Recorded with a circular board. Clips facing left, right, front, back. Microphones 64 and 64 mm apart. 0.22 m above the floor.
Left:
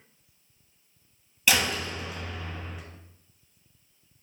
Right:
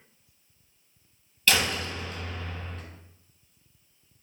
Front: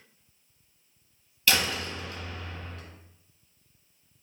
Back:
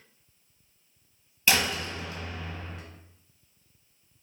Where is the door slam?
145° left, 1.1 m.